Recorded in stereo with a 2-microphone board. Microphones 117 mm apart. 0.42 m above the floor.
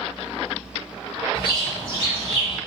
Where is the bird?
45° left (ahead or behind), 1.6 m.